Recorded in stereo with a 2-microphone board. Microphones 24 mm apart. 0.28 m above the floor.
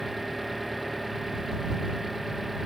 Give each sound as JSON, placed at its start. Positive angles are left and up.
{"t": 0.0, "sound": "an engine running", "side_deg": -15}